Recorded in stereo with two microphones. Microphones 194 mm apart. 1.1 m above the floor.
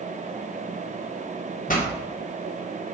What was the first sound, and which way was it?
A pop, 45° left (ahead or behind).